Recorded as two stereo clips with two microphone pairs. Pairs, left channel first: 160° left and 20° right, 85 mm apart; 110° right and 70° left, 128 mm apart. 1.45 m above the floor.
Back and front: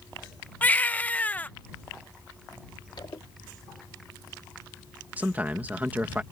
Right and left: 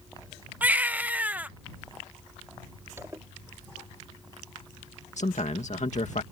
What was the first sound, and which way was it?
A baby crying, 130° left.